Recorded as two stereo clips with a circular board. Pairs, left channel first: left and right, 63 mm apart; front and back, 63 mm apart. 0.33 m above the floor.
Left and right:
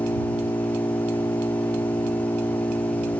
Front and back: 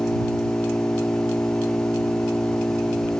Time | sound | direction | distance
0.0 | an engine running | 65° left | ?